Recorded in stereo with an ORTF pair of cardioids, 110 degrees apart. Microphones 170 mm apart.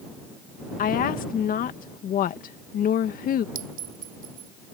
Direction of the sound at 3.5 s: 60° right.